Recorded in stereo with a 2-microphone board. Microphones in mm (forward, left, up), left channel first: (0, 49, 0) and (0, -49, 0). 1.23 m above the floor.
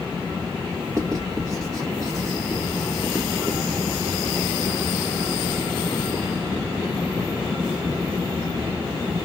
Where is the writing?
40° right (ahead or behind), 1.9 m.